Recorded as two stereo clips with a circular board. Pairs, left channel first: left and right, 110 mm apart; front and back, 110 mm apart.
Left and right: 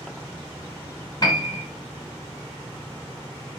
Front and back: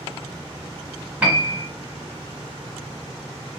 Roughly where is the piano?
Left.